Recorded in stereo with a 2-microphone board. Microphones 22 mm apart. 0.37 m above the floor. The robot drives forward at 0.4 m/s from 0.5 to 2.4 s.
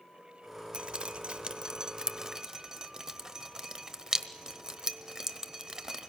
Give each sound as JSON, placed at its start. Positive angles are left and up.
{"t": 0.7, "sound": "dripping", "side_deg": -40, "distance_m": 0.5}